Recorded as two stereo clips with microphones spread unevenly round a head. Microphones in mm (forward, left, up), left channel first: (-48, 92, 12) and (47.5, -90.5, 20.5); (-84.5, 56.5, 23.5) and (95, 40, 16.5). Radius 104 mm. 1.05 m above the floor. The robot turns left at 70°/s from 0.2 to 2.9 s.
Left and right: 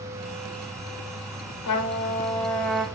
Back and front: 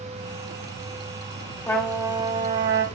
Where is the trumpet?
100° left, 0.9 m; by 2.8 s 20° left, 0.9 m.